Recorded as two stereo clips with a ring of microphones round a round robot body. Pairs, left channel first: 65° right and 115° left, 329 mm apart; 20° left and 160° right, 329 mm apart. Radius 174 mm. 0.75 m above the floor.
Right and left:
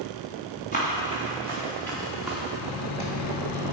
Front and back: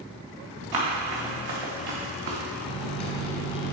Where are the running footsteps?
135° right, 4.5 m; by 2.4 s 160° right, 3 m.